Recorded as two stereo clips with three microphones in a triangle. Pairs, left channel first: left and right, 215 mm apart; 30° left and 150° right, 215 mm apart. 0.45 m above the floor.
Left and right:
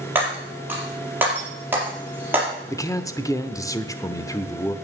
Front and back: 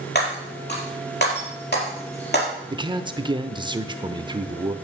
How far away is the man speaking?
About 0.9 m.